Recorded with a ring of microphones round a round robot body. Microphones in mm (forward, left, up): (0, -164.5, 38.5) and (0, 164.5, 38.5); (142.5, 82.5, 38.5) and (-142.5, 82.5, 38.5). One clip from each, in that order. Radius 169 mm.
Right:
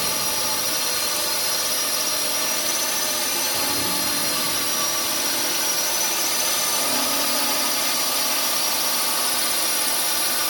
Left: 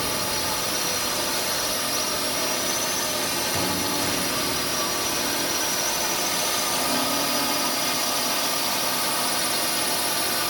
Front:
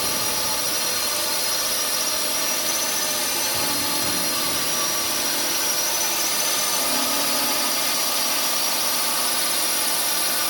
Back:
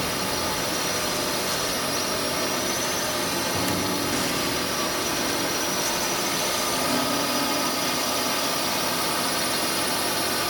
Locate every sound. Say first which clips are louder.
0.0 s a drone: right 1 dB, front 2 dB; 40° right